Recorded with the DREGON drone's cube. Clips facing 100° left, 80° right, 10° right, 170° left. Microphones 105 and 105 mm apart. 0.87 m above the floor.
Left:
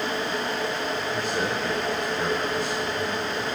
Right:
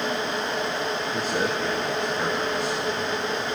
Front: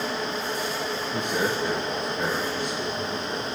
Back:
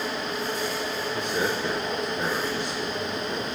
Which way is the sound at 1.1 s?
50° right.